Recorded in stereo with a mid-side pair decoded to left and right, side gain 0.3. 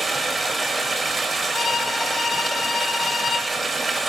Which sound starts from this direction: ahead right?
Running water, at 0.0 s.